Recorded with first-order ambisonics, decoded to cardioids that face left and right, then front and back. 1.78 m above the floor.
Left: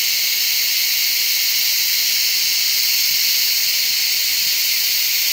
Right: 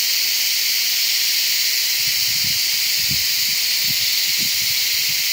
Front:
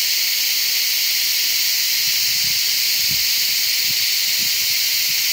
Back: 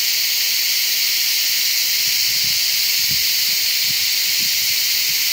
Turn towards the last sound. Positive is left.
No sound to turn to.